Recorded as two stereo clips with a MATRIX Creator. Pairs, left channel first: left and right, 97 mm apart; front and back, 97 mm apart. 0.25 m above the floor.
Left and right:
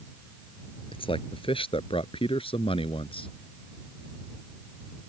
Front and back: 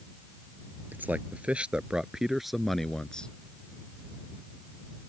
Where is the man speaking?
110° left; by 3.3 s 80° left.